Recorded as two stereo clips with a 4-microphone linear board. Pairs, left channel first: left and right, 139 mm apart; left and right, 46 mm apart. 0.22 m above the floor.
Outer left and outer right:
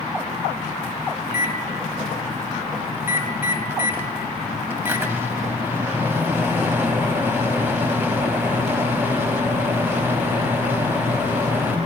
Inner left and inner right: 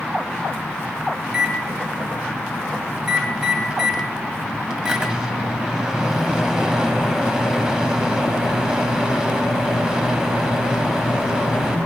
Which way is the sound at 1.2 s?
15° right (ahead or behind).